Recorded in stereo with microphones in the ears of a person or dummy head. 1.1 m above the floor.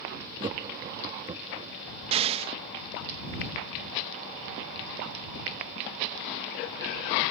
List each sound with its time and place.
0.4 s laughter: 30° right (ahead or behind)
2.1 s an explosion: 35° right (ahead or behind)